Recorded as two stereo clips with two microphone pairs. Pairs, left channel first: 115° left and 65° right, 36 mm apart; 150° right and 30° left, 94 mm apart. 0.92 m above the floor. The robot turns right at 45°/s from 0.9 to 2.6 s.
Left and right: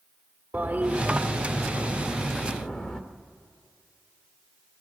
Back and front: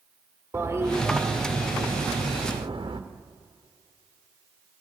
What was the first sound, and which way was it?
A toilet flushing, 30° right.